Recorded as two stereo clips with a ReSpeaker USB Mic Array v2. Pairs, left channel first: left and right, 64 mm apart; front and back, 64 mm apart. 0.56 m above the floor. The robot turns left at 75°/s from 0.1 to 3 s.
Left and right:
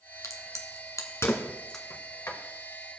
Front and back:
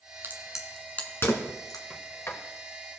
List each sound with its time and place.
0.2 s a crack: 125° left, 1.4 m; by 1.8 s 5° left, 1.4 m
1.9 s a sliding door: 75° left, 1.2 m; by 2.4 s 40° left, 1.2 m